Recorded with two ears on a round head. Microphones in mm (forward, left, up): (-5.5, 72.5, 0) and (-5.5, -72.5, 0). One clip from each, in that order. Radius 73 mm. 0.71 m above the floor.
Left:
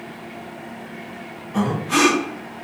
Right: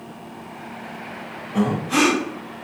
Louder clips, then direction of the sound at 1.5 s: Left 1 dB; 30° left (ahead or behind).